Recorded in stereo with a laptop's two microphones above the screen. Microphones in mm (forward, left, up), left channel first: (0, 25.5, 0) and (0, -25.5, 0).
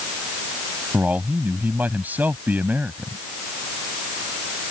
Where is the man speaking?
35° right (ahead or behind).